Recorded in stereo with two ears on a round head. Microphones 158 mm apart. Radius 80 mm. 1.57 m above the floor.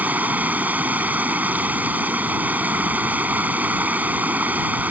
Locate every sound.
0.0 s running water: 10° right (ahead or behind)